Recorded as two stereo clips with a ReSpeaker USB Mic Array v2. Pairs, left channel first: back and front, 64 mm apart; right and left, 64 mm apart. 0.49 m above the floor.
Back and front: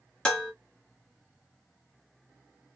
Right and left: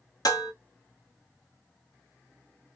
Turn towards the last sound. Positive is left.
turn(degrees=-105)